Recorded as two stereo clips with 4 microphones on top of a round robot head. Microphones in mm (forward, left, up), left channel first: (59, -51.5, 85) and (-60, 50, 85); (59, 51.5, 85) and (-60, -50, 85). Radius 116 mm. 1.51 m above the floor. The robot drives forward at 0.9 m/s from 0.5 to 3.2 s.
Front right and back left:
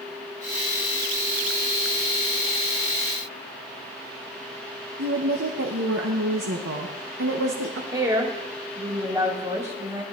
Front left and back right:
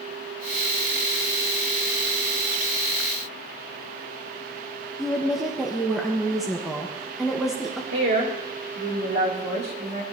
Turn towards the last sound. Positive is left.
turn(degrees=-150)